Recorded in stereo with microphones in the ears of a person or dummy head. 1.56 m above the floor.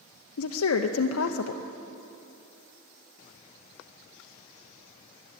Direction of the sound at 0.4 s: 80° left.